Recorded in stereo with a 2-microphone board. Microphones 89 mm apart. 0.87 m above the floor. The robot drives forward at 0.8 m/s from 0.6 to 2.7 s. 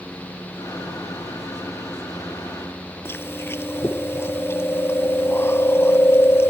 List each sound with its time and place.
3.0 s chewing: 25° left (ahead or behind)